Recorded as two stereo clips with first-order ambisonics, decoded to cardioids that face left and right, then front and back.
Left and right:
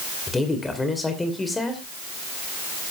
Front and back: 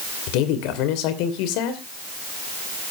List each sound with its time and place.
0.3 s a woman speaking: 10° left, 2.5 m